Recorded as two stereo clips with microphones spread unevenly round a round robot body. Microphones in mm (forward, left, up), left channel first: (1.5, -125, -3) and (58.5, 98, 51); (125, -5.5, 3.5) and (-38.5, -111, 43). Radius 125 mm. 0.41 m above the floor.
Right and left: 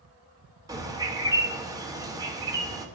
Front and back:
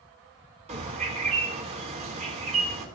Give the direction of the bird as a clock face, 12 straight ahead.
7 o'clock.